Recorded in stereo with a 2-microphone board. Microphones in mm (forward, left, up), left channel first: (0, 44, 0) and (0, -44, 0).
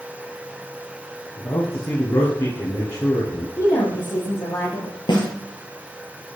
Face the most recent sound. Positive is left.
turn(degrees=55)  # may be behind; listen again after turning